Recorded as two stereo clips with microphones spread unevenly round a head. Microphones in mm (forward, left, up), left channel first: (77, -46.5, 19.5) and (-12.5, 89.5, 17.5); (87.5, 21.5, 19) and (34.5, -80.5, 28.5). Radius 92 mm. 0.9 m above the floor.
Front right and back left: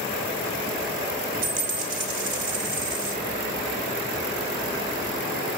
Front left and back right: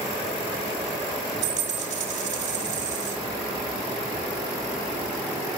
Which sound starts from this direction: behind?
A dropped coin, at 1.4 s.